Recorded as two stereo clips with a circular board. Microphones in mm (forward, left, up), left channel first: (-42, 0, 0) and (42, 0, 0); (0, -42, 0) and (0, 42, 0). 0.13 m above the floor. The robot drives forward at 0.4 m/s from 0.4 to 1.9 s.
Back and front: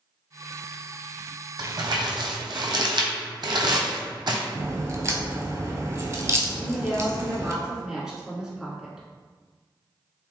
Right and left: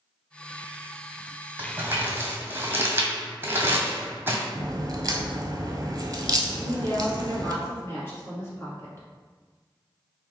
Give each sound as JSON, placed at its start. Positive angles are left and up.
{"t": 1.6, "sound": "crumpling", "azimuth_deg": 20, "distance_m": 1.0}
{"t": 4.5, "sound": "a crack", "azimuth_deg": 50, "distance_m": 0.7}
{"t": 6.6, "sound": "a woman speaking", "azimuth_deg": -80, "distance_m": 1.3}